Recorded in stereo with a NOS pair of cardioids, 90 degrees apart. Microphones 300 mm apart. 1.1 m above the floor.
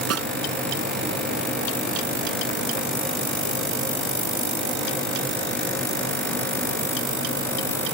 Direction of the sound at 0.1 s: 55° right.